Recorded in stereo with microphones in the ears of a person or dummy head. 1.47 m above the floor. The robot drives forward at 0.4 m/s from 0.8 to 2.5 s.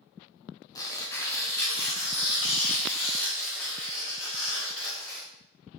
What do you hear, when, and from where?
0.8 s tearing paper: 20° left (ahead or behind), 0.6 m; by 5.3 s 10° left (ahead or behind), 1.2 m